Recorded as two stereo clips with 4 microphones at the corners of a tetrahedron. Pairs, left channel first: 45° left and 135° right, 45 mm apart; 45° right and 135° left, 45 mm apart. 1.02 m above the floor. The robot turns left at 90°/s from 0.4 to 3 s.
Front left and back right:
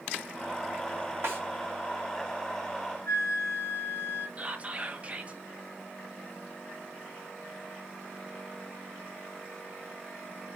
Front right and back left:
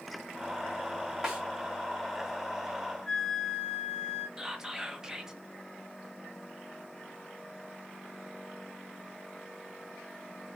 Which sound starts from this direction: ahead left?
A flute, at 3.1 s.